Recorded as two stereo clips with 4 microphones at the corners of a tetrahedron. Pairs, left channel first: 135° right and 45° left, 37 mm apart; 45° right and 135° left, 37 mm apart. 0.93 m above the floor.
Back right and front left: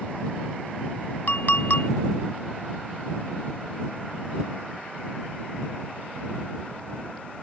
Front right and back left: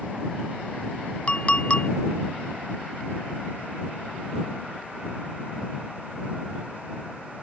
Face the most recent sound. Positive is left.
turn(degrees=-100)